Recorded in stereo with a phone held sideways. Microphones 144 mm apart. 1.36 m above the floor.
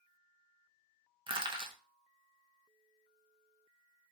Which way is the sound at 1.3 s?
35° right (ahead or behind).